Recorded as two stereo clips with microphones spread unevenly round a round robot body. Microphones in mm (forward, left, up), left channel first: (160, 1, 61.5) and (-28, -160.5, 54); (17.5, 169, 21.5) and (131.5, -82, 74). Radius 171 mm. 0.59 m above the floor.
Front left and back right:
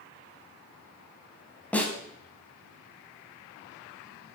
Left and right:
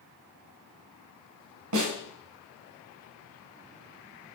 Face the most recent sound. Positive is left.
turn(degrees=-45)